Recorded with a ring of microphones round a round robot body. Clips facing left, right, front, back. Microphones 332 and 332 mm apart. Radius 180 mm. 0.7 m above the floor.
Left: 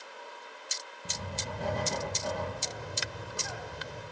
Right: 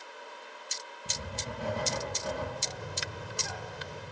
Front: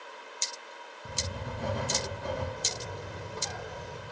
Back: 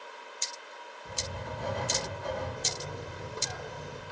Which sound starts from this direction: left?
A bird, at 2.6 s.